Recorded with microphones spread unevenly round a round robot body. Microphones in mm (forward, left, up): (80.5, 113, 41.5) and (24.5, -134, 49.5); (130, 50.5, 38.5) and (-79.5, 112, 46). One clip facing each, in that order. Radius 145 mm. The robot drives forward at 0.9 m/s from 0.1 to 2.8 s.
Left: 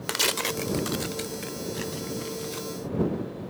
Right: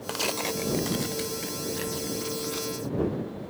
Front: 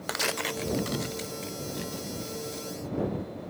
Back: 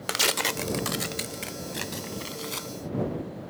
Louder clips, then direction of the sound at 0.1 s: Even, back 2 dB; 120° left.